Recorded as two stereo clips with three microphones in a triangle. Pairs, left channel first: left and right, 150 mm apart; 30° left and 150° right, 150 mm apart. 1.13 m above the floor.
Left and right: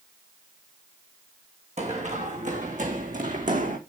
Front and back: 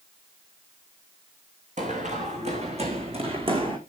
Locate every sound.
1.8 s running footsteps: 125° right, 4 m; by 3.8 s 100° right, 4 m